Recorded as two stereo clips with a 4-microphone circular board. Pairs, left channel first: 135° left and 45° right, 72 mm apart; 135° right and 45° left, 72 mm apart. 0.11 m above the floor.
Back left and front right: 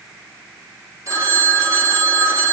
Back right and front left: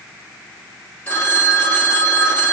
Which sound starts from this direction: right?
A phone ringing, at 1.1 s.